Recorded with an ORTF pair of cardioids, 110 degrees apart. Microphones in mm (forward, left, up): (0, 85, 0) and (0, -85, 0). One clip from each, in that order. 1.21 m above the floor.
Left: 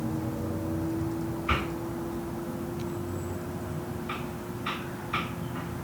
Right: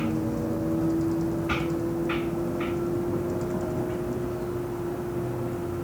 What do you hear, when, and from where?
0.0 s a vehicle: 40° right; by 5.8 s 70° right